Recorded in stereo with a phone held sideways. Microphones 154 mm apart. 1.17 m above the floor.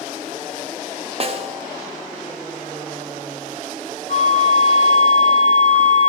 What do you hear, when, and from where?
1.2 s a snare drum: 40° right (ahead or behind), 1.0 m
4.1 s a flute: 60° left (ahead or behind), 3 m